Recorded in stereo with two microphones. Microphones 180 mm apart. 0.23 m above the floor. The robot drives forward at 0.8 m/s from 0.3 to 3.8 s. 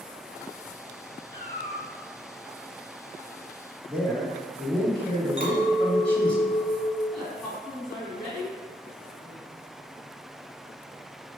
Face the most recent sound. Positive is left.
turn(degrees=0)  # may be behind; listen again after turning